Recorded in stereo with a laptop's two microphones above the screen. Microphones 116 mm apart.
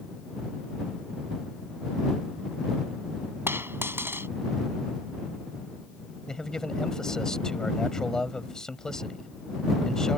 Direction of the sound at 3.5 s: 20° right (ahead or behind).